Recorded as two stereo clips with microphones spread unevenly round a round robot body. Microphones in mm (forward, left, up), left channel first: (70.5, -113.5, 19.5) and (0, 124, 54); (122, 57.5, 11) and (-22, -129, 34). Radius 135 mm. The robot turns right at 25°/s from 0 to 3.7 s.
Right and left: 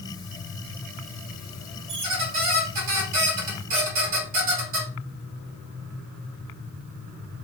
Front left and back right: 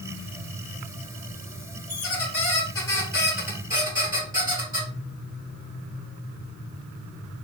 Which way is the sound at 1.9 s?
110° left.